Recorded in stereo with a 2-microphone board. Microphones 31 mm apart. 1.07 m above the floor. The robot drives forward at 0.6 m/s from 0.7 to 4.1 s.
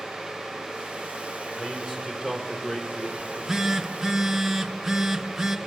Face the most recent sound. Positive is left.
turn(degrees=-5)  # may be behind; listen again after turning